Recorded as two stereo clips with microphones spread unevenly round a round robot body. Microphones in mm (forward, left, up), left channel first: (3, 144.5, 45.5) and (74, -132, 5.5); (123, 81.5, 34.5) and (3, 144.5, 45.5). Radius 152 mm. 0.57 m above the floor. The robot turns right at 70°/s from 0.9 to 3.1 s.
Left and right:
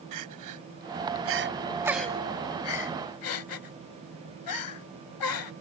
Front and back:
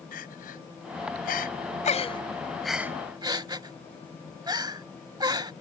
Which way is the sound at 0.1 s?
60° right.